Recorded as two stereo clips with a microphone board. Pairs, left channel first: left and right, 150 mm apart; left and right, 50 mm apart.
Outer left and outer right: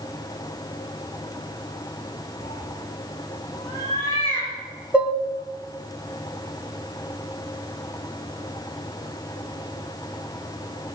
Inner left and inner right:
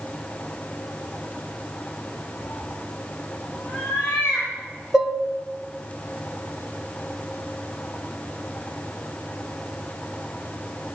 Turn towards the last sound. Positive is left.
turn(degrees=-10)  # may be behind; listen again after turning